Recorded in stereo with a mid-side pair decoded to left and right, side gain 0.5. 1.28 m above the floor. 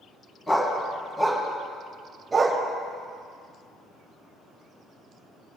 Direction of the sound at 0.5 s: 15° left.